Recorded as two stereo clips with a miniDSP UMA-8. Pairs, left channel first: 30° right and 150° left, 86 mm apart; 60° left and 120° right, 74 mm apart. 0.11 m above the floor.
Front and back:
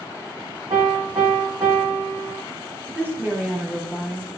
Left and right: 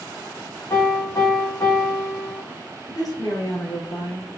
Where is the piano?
110° left, 2.5 m.